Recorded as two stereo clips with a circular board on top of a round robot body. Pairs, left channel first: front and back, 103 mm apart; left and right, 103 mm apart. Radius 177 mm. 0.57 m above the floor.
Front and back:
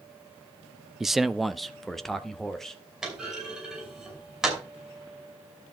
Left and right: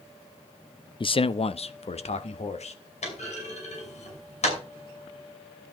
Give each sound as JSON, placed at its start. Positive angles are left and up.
{"t": 1.0, "sound": "a man speaking", "azimuth_deg": 95, "distance_m": 0.7}
{"t": 3.0, "sound": "a clunk", "azimuth_deg": 95, "distance_m": 5.5}